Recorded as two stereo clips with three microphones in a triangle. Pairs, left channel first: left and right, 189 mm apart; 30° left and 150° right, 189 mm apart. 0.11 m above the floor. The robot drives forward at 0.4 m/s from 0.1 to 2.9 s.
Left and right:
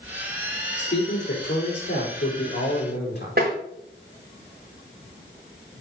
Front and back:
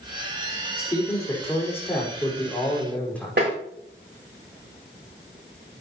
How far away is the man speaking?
About 5 m.